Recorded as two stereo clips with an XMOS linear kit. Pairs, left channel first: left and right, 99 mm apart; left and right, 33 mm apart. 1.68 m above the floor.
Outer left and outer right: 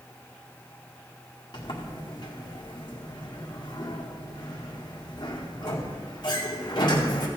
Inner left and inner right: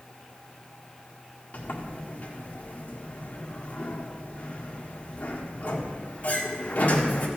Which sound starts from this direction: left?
A sliding door, at 1.5 s.